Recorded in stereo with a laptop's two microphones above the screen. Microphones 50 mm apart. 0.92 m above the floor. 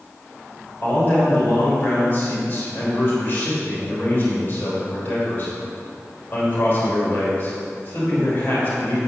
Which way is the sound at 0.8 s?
40° left (ahead or behind).